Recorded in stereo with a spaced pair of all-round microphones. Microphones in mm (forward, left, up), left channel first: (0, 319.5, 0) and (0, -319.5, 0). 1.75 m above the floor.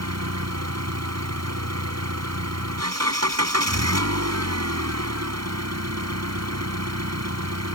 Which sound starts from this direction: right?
An engine running, at 0.0 s.